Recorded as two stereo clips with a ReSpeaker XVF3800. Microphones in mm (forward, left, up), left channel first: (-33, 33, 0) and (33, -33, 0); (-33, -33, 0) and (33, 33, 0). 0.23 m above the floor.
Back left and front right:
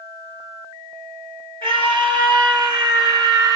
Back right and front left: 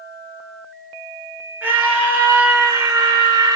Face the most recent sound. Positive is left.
turn(degrees=0)